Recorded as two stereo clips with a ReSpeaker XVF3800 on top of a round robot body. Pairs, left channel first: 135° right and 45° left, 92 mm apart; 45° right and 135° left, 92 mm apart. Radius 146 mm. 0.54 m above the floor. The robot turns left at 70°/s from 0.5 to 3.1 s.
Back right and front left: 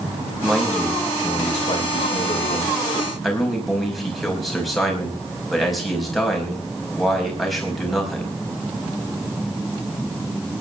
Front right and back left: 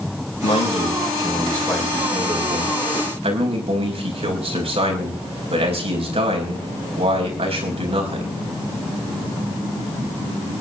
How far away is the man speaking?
About 5 m.